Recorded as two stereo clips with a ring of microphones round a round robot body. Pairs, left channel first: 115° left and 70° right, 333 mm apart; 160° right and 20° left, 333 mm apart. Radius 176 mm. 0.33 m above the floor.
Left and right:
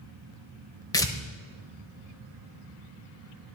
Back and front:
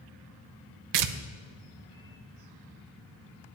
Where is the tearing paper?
35° left, 0.7 m.